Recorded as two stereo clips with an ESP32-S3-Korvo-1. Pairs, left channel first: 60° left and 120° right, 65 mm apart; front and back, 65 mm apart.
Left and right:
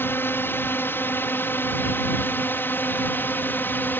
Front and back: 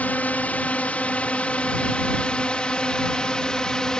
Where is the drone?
45° left; by 4.0 s 70° left.